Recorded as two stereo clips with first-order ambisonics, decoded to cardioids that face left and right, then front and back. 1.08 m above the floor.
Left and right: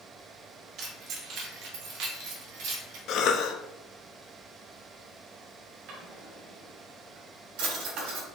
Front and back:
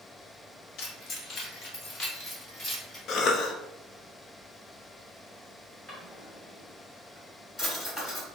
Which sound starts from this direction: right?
A drawer, at 5.9 s.